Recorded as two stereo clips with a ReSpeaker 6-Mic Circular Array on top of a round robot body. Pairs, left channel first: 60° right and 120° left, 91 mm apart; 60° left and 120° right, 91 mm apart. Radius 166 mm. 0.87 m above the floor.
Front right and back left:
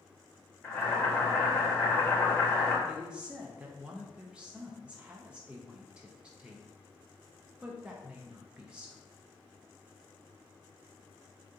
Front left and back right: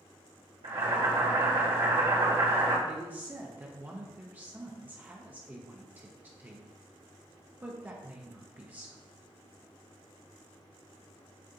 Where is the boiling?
130° right, 1.7 m.